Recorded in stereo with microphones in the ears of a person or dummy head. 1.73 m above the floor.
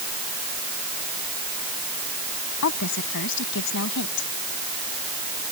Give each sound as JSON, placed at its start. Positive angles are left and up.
{"t": 2.6, "sound": "a woman speaking", "side_deg": 60}